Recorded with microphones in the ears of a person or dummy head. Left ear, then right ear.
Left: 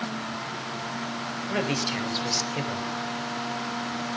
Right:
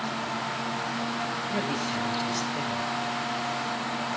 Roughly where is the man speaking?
Left.